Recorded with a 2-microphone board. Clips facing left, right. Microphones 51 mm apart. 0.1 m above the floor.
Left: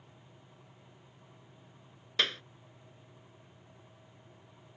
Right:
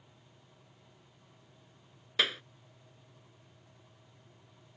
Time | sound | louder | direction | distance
2.2 | a clap | right 1 dB | 5° right (ahead or behind) | ?